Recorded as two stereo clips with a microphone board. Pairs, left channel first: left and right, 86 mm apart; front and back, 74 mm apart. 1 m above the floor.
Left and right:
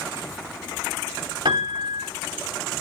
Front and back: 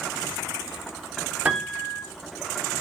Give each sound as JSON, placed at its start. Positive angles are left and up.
{"t": 1.4, "sound": "a piano", "azimuth_deg": -105, "distance_m": 2.5}